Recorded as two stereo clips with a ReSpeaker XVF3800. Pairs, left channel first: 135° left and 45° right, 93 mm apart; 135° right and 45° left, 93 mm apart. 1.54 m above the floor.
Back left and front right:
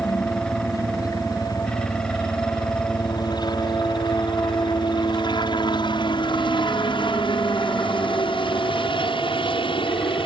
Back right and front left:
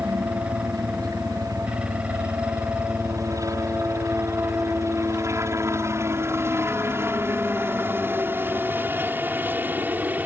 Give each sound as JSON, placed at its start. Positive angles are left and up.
{"t": 0.0, "sound": "a helicopter", "azimuth_deg": 85}